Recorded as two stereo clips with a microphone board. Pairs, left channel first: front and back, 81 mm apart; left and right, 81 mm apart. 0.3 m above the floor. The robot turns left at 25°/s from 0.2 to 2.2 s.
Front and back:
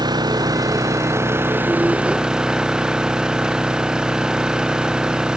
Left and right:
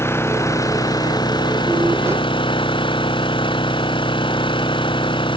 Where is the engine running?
150° left; by 5.4 s 100° left.